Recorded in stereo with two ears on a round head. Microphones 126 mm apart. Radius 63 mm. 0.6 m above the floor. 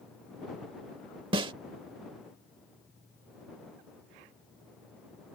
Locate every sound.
1.3 s a snare drum: 35° right (ahead or behind)